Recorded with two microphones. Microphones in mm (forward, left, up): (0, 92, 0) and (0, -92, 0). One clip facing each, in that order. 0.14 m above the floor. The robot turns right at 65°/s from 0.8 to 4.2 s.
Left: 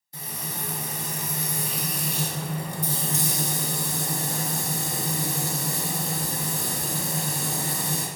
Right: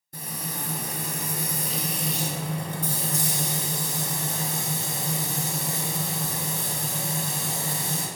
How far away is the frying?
About 0.7 m.